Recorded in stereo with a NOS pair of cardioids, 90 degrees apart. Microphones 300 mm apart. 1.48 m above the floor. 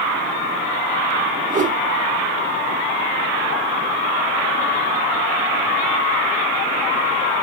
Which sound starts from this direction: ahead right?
A whoosh, at 1.5 s.